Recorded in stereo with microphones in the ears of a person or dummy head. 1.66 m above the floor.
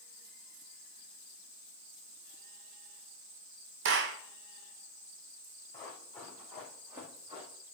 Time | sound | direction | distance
3.9 | a clap | 60° right (ahead or behind) | 0.6 m
5.7 | running footsteps | 10° left (ahead or behind) | 4 m